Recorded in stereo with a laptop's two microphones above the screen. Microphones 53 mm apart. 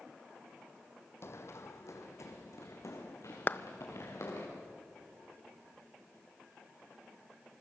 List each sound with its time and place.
1.2 s running footsteps: 55° left (ahead or behind), 1.6 m; by 4.5 s 60° left (ahead or behind), 4.5 m
3.5 s a clap: 40° left (ahead or behind), 0.7 m